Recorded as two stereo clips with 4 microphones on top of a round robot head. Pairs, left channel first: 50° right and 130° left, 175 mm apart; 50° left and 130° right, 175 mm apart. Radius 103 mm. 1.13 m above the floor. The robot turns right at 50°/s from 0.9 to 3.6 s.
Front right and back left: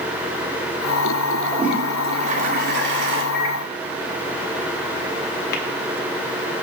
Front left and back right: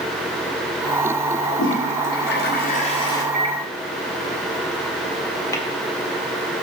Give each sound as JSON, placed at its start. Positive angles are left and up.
{"t": 1.4, "sound": "a toilet flushing", "azimuth_deg": 35, "distance_m": 2.5}
{"t": 3.3, "sound": "a microwave", "azimuth_deg": -85, "distance_m": 2.0}
{"t": 5.5, "sound": "tapping", "azimuth_deg": -20, "distance_m": 1.6}